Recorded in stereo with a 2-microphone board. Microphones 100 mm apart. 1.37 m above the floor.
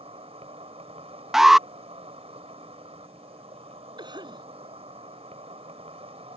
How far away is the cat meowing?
I don't hear a cat meowing.